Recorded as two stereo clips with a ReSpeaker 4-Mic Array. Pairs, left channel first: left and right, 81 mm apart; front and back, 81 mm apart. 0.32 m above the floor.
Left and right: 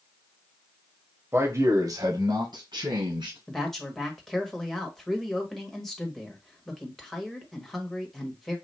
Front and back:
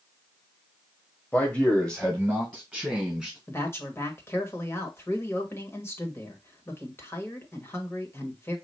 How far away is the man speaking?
About 1.4 m.